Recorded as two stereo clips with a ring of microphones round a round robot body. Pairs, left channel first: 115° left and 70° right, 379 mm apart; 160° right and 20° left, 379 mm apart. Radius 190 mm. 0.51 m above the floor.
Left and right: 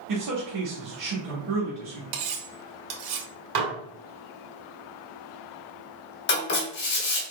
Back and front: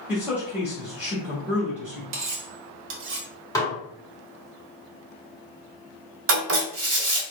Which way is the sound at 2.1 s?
35° right.